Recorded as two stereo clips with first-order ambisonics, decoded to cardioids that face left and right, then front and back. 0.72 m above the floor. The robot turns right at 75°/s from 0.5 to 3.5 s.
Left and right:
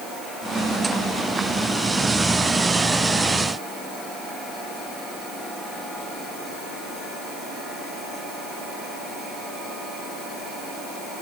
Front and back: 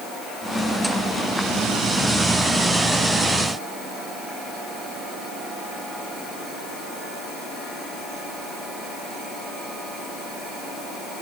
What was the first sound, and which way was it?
Only background noise.